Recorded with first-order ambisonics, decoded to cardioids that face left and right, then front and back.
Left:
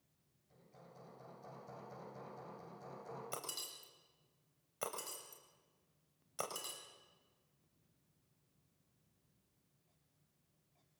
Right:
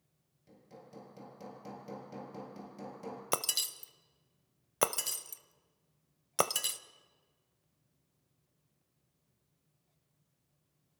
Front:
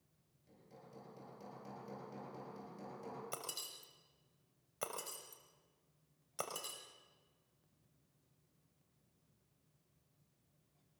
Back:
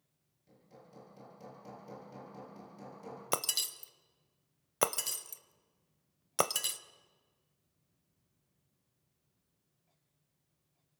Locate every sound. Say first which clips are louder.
0.5 s hammering: right 7 dB, back 2 dB; 95° right, 6 m
3.3 s breaking glass: right 16 dB, back 12 dB; 135° right, 0.8 m